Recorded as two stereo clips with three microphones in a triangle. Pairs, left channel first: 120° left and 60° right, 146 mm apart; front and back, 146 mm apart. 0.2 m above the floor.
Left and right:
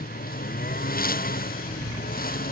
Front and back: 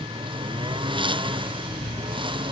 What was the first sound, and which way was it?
A lawn mower, 125° left.